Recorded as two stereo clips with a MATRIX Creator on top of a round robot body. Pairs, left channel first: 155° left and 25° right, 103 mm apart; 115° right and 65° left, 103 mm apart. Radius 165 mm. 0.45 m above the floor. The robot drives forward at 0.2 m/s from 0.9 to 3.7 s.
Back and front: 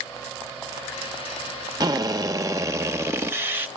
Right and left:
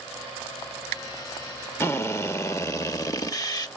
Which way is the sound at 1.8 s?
55° right.